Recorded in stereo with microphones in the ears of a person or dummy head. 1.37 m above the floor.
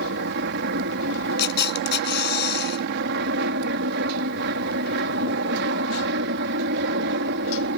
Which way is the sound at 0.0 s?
65° right (ahead or behind).